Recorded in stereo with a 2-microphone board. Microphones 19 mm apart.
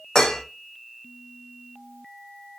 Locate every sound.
0.1 s dishes clattering: 45° left (ahead or behind), 0.5 m